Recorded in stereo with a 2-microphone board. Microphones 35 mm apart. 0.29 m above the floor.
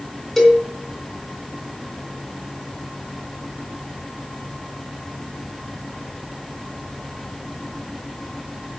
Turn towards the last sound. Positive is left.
turn(degrees=0)  # may be behind; listen again after turning